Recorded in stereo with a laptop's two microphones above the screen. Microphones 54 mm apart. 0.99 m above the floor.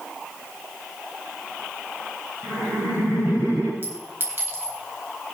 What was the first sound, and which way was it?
Laughter, 60° right (ahead or behind).